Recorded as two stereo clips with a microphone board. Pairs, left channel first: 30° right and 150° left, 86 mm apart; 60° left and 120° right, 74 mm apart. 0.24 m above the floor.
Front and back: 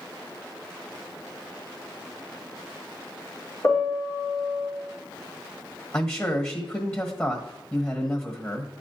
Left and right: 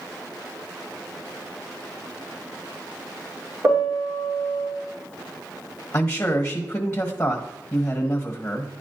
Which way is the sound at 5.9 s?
10° left.